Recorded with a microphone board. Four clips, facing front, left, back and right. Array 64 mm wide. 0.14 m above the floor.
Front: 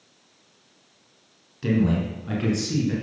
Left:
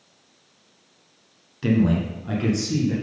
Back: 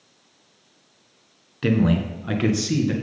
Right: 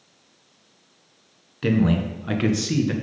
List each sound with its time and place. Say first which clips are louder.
1.6 s a man speaking: even, back 2 dB; 155° right, 1.3 m; by 2.9 s 120° right, 1.6 m